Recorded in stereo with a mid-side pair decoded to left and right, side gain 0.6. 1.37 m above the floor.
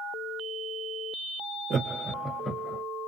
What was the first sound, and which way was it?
Laughter, 40° right.